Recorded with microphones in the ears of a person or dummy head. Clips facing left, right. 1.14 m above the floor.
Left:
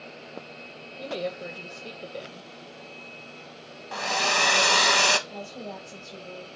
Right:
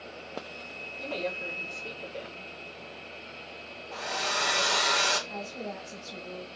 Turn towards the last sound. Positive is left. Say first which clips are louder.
# even
turn(degrees=-10)  # may be behind; listen again after turning